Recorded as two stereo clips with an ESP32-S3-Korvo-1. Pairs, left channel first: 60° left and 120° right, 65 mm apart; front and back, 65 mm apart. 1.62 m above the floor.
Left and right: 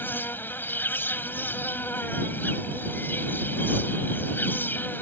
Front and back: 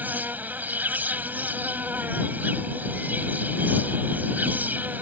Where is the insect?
115° left.